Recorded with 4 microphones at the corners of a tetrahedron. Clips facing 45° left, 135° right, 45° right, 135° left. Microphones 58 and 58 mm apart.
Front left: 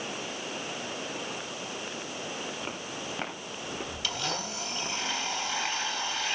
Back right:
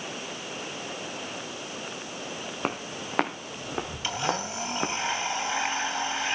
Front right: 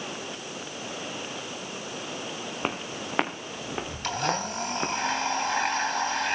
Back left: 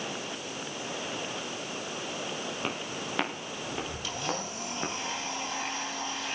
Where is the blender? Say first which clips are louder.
Back right 5 dB, front right 9 dB; 70° right, 2.5 m.